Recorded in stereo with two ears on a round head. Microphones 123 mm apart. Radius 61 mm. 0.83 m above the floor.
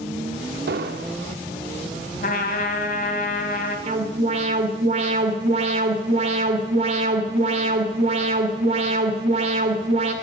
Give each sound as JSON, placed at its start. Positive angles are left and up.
{"t": 0.7, "sound": "an explosion", "side_deg": -80, "distance_m": 0.8}
{"t": 2.2, "sound": "a trumpet", "side_deg": 65, "distance_m": 2.5}
{"t": 3.9, "sound": "an alarm", "side_deg": -50, "distance_m": 2.5}